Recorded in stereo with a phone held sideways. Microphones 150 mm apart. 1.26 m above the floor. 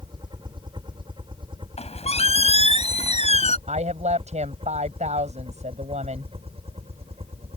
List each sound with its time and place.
0.0 s a helicopter: 30° right (ahead or behind); by 7.6 s 40° right (ahead or behind)
1.8 s a squeak: 45° left (ahead or behind)
3.7 s a woman speaking: 50° right (ahead or behind)